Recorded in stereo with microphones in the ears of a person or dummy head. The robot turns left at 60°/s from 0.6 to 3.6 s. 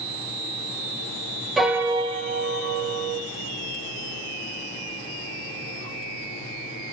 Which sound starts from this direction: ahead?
A piano, at 1.6 s.